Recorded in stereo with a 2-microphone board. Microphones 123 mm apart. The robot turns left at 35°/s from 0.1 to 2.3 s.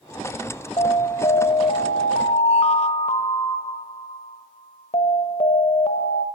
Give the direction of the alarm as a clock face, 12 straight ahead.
8 o'clock.